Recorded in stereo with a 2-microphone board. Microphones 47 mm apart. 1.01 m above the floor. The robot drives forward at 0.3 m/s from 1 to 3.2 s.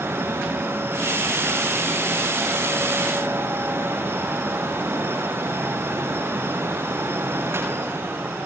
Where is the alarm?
I don't hear an alarm.